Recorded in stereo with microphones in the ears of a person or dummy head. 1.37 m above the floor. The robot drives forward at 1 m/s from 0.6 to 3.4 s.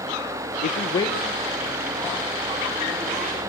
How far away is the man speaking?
About 0.5 m.